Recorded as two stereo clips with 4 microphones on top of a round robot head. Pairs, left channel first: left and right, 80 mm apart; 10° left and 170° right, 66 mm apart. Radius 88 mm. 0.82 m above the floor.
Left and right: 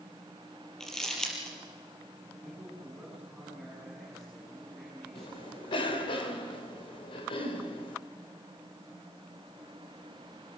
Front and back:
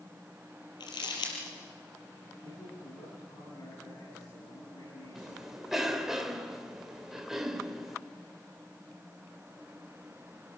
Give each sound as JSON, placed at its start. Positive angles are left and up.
{"t": 0.8, "sound": "crumpling", "azimuth_deg": 10, "distance_m": 5.0}
{"t": 2.4, "sound": "a man speaking", "azimuth_deg": 5, "distance_m": 8.5}
{"t": 5.2, "sound": "a cough", "azimuth_deg": 105, "distance_m": 3.5}